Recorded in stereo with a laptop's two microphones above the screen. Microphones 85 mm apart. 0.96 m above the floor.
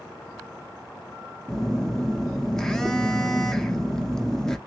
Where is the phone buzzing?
5° left (ahead or behind), 0.6 m.